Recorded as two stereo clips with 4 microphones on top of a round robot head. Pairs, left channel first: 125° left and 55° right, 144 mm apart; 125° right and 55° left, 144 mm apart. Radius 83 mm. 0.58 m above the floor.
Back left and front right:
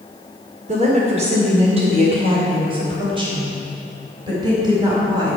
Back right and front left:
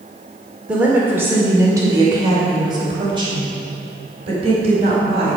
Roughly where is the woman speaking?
Ahead right.